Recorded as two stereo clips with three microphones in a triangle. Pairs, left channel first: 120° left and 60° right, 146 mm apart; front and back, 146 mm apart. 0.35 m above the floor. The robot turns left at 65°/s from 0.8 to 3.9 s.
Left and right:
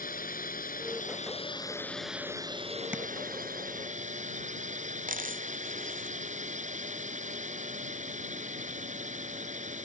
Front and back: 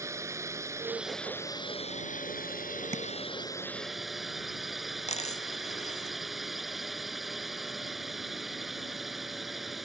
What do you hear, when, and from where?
0.0 s a drone: 110° left; by 9.8 s 90° right
2.9 s tapping: 140° right; by 3.0 s 150° right
5.1 s a dropped coin: 40° right